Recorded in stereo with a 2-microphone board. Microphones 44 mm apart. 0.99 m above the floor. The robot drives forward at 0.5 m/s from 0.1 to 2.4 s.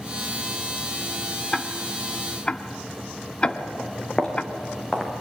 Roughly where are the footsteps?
Left.